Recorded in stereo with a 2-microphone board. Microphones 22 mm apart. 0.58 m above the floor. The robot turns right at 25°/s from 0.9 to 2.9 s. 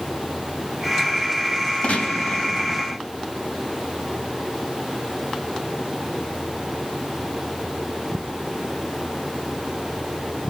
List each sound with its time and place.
1.8 s a gunshot: 60° left (ahead or behind), 4.5 m; by 3.0 s 80° left, 4.5 m